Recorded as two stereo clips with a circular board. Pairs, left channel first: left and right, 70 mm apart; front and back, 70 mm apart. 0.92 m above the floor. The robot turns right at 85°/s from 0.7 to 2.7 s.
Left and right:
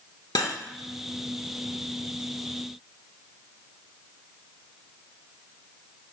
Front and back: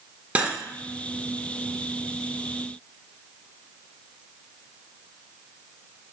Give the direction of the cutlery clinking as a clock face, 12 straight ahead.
8 o'clock.